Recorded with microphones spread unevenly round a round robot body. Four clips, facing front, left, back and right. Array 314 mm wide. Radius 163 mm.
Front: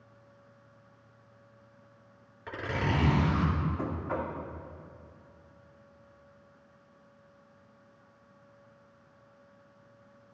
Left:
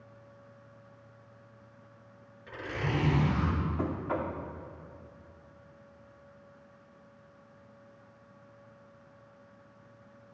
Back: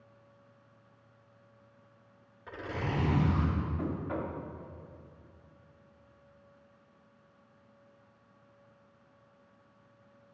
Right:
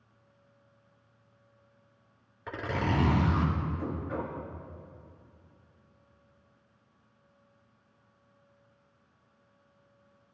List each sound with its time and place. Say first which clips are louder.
2.5 s a zipper: right 4 dB, front 4 dB; 55° right, 4 m
3.8 s knocking: left 2 dB, front 1 dB; 65° left, 2.5 m